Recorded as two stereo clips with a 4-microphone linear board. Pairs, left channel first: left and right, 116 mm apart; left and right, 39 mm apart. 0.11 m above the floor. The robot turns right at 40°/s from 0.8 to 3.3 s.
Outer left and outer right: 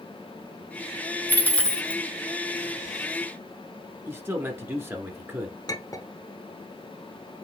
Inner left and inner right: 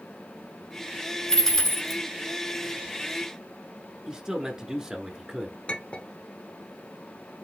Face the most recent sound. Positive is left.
turn(degrees=35)  # may be behind; listen again after turning